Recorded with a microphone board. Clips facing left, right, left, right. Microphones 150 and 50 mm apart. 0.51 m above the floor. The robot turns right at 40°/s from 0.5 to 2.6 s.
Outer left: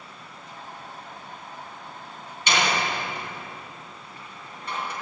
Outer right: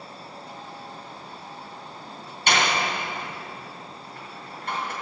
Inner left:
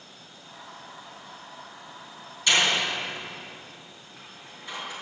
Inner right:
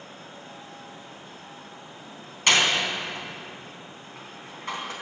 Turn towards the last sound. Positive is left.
turn(degrees=-60)  # may be behind; listen again after turning